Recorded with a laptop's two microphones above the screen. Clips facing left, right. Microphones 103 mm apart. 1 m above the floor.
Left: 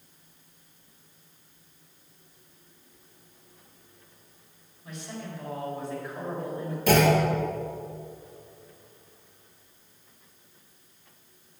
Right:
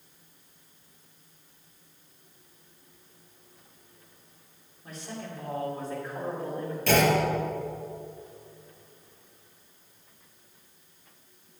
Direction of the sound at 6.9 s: 10° left (ahead or behind).